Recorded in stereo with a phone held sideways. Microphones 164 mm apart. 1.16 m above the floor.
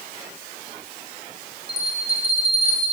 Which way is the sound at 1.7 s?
40° right (ahead or behind).